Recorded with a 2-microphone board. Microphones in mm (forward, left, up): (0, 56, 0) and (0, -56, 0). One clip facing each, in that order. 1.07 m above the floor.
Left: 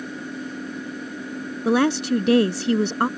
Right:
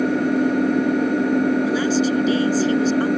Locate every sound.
0.0 s an engine running: 65° right (ahead or behind)
1.6 s a woman speaking: 65° left (ahead or behind)